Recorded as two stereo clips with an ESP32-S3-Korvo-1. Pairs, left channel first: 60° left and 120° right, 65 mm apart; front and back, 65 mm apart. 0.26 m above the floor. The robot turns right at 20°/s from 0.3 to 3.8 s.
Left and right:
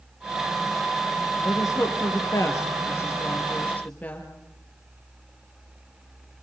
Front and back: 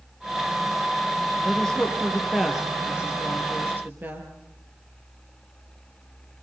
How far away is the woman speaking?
About 4.5 m.